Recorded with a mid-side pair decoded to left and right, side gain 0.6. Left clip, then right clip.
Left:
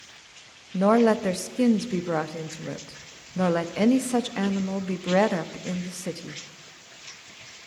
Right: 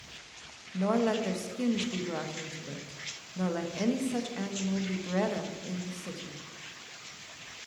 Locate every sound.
0.7 s a woman speaking: 50° left, 0.7 m